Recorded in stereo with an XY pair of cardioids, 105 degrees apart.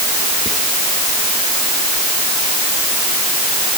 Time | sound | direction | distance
0.5 | whispering | 5° left | ?